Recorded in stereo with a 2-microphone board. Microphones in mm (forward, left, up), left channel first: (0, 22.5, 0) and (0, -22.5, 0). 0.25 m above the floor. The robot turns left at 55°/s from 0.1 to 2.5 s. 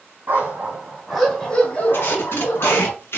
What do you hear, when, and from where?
0.3 s a dog barking: 130° right, 2.5 m; by 2.9 s 105° left, 2.5 m
1.9 s tape being pulled: 110° left, 2 m; by 3.2 s 80° left, 2 m